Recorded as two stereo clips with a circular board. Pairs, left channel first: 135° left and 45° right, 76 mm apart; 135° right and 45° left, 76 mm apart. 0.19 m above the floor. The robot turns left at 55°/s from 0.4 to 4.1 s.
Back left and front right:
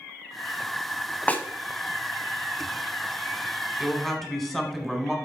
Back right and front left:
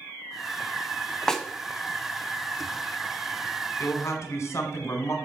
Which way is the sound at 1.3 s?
155° left.